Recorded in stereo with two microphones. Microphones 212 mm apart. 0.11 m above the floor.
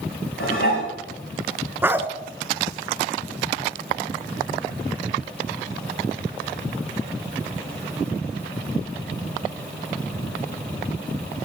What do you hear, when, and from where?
0.4 s dishes clattering: 75° left (ahead or behind), 5.5 m
1.8 s a dog barking: 10° right (ahead or behind), 0.5 m